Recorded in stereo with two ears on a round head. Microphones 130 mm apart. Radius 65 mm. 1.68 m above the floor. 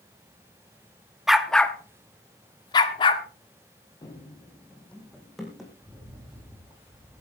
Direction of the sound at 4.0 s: 25° left (ahead or behind).